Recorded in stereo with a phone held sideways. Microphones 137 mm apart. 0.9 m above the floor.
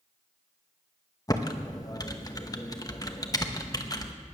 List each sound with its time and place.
1.3 s typing on a keyboard: 25° left (ahead or behind), 1.0 m